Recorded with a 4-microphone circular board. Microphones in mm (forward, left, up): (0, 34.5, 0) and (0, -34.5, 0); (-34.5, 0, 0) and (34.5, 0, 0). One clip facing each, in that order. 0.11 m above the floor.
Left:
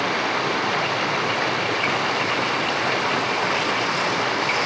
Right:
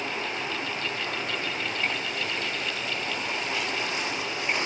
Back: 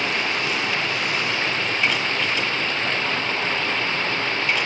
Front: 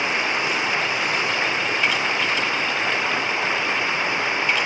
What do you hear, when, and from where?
0.0 s running water: 75° left